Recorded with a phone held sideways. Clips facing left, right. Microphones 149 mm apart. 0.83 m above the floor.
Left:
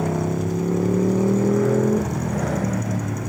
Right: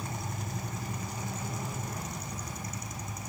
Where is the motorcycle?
85° left.